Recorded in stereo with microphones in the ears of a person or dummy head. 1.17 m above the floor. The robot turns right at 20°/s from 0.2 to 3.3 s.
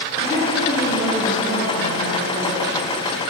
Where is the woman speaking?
160° left, 3 m; by 2.7 s 150° right, 3 m.